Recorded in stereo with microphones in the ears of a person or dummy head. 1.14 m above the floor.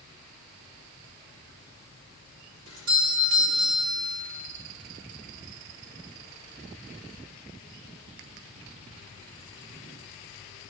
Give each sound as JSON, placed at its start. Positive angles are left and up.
{"t": 2.7, "sound": "a doorbell", "side_deg": -65, "distance_m": 3.0}